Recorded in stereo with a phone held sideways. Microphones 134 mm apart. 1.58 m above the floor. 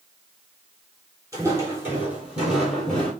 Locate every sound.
1.3 s footsteps: 25° right (ahead or behind), 1.7 m; by 3.1 s 10° left (ahead or behind), 1.6 m